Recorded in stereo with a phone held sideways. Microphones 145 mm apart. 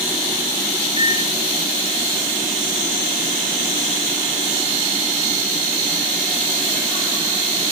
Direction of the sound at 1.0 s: 40° right (ahead or behind).